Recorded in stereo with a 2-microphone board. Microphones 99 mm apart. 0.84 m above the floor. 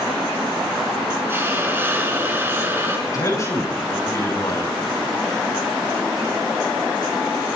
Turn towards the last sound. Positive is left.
turn(degrees=35)  # may be behind; listen again after turning